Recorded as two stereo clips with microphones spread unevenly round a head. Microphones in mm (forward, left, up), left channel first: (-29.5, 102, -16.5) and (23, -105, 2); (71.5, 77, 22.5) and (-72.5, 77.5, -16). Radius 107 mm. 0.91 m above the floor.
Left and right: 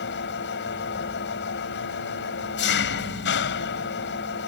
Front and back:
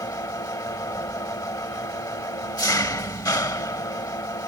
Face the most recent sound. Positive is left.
turn(degrees=65)